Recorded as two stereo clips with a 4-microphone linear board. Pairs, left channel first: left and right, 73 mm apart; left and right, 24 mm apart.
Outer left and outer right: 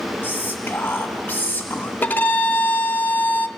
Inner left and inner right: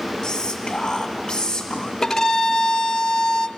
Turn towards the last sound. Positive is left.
turn(degrees=25)  # may be behind; listen again after turning